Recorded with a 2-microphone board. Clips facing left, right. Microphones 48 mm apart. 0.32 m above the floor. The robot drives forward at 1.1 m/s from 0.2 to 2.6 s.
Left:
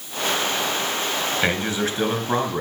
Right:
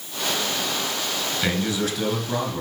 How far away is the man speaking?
About 4 m.